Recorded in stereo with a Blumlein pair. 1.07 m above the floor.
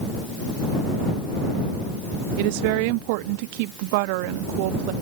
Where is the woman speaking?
45° right.